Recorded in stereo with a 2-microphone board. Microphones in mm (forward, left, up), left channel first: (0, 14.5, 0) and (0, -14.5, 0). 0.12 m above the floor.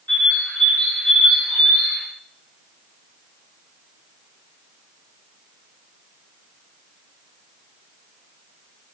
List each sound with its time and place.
0.1 s a bird: 50° left (ahead or behind), 10 m